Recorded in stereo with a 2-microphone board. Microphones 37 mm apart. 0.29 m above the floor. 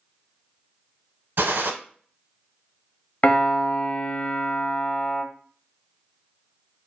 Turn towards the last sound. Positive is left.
turn(degrees=40)  # may be behind; listen again after turning